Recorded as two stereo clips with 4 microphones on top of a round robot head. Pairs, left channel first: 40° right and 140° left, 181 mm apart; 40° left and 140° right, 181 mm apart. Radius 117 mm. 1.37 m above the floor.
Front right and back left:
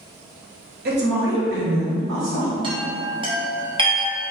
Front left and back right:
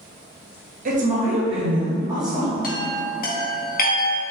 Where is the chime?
75° left, 1.0 m.